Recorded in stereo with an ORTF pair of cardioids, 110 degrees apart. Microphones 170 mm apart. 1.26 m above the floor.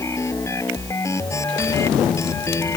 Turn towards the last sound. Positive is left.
turn(degrees=15)